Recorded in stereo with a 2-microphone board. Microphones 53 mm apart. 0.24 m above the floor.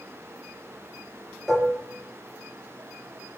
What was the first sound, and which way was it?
Dishes clattering, centre (ahead or behind).